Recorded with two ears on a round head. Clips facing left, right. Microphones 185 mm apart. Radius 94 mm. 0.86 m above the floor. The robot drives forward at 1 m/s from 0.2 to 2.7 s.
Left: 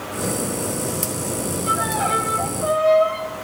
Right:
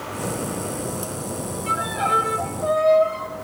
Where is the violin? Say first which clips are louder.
Left 2 dB; 35° right (ahead or behind), 2 m; by 3.3 s 25° right (ahead or behind), 3 m.